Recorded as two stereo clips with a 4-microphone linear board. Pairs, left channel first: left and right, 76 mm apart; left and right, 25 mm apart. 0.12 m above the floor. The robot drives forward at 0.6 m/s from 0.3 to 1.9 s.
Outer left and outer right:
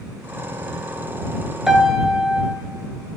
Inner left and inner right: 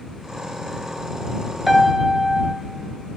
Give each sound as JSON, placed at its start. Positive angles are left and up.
{"t": 1.7, "sound": "a piano", "side_deg": -5, "distance_m": 0.7}